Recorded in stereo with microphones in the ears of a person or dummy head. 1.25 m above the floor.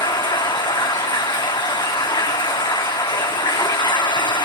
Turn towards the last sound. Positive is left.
turn(degrees=25)  # may be behind; listen again after turning